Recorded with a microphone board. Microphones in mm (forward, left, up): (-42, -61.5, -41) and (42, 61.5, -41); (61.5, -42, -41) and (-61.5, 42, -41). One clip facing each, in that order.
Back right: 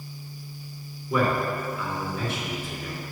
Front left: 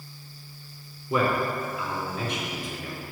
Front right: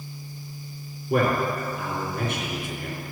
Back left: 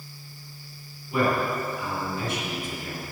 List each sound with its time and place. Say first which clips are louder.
1.1 s a man speaking: even, front right 2 dB; 15° right, 3 m